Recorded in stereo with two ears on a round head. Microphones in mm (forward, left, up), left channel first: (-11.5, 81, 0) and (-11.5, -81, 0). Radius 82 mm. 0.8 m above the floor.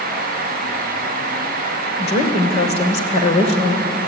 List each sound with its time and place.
2.0 s a woman speaking: 40° left (ahead or behind), 3 m